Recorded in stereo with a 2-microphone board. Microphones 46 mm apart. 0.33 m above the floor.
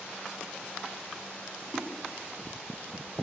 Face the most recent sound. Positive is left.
turn(degrees=-60)  # may be behind; listen again after turning